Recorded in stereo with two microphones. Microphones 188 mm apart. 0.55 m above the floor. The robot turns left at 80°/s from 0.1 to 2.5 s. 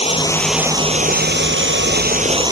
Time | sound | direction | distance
0.0 | running water | 30° left | ?